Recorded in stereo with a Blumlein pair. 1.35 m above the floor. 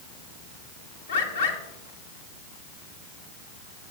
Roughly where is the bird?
Ahead left.